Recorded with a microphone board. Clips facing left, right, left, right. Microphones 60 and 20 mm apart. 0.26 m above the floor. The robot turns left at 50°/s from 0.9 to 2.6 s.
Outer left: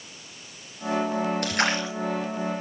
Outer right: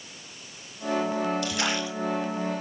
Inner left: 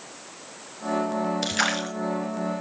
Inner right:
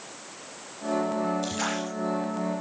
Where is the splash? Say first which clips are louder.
Outer left 3 dB, inner left 4 dB; 55° left (ahead or behind), 3 m; by 1.9 s 35° left (ahead or behind), 3 m.